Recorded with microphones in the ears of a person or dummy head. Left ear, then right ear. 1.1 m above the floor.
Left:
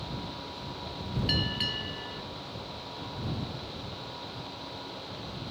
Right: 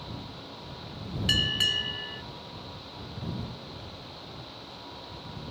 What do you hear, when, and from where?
1.3 s a bell: 40° right (ahead or behind)